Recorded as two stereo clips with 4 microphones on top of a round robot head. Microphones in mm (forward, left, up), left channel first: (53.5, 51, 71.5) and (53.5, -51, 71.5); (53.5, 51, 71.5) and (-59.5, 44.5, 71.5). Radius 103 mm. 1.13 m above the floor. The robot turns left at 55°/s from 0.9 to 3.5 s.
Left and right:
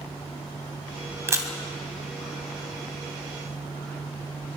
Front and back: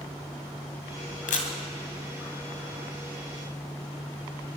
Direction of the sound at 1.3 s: 25° right.